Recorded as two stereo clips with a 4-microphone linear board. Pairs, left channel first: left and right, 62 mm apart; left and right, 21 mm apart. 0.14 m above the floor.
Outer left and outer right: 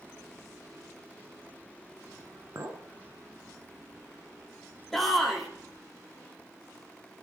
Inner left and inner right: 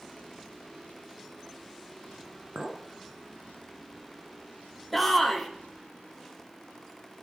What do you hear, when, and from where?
2.5 s a clink: 55° right (ahead or behind), 1.7 m
4.9 s a shout: 5° left (ahead or behind), 5 m